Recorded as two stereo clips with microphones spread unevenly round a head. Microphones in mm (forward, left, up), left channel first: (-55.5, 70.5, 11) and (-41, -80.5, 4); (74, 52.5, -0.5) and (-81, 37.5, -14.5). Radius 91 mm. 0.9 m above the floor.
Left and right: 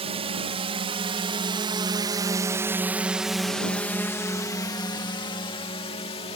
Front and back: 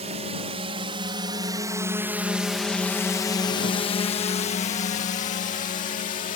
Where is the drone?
125° right; by 6.4 s 40° left.